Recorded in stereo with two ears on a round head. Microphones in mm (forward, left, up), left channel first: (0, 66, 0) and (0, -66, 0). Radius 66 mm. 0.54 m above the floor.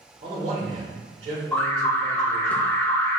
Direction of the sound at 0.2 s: 50° right (ahead or behind).